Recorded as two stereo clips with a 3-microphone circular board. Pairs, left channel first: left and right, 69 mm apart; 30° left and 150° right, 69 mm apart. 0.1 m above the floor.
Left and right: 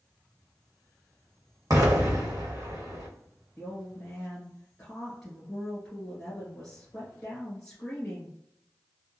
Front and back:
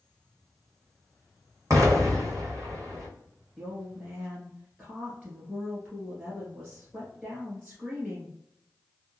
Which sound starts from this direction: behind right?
An explosion, at 1.7 s.